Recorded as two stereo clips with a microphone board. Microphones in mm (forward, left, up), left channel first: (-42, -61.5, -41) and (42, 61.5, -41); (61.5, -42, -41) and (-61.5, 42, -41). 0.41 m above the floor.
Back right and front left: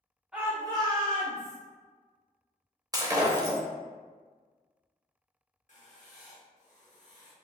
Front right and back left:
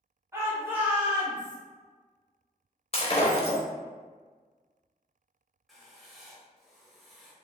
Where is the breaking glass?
5° right, 0.6 m.